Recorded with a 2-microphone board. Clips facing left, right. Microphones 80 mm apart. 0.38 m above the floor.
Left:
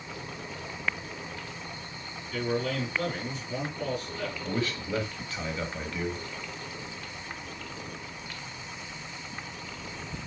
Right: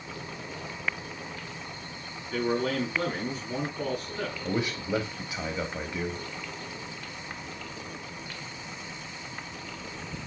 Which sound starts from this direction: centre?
A man speaking, at 4.4 s.